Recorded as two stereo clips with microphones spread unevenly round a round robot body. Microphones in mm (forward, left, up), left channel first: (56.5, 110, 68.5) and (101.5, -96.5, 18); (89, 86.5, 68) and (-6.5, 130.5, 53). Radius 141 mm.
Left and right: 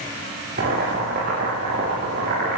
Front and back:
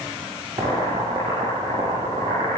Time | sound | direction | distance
0.6 | boiling | 135° right | 9.5 m